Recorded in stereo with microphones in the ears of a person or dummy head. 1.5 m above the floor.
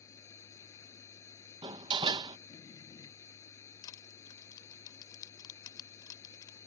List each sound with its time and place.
0.0 s a machine running: 15° left (ahead or behind)
1.6 s a door slam: 20° right (ahead or behind)
3.8 s crushing: 25° left (ahead or behind)